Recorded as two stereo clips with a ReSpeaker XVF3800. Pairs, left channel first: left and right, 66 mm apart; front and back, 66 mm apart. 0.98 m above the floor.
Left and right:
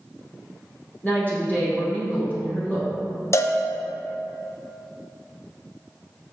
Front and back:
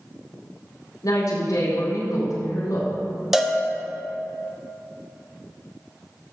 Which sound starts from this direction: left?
A cowbell, at 3.3 s.